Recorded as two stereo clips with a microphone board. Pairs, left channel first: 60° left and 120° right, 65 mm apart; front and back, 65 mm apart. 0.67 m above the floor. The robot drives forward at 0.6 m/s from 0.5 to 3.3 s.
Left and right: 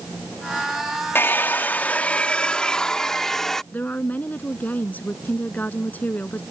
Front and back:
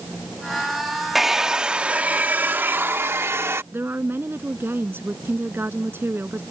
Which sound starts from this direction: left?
A hair dryer, at 1.1 s.